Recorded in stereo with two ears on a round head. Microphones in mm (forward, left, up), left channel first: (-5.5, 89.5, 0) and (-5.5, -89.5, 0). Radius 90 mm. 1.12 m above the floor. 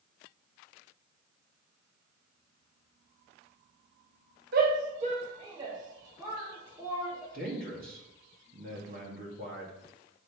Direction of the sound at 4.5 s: 50° right (ahead or behind).